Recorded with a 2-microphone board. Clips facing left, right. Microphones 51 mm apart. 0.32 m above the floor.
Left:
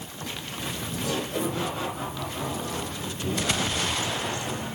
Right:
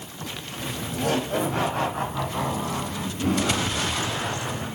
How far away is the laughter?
About 1.2 m.